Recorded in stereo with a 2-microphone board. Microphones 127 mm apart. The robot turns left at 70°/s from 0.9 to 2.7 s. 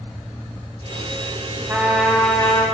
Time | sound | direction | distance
1.7 | a trumpet | 155° right | 2 m